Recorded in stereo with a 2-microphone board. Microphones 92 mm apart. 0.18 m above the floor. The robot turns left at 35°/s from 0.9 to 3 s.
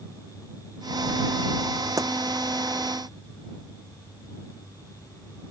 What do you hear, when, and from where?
2.0 s a pop: 35° right (ahead or behind); by 2.1 s 40° right (ahead or behind)